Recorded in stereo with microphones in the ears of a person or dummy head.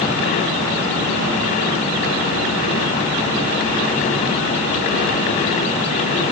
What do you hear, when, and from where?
Only background noise.